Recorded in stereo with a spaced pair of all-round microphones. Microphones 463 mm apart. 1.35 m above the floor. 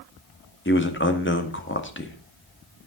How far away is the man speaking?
About 1.9 m.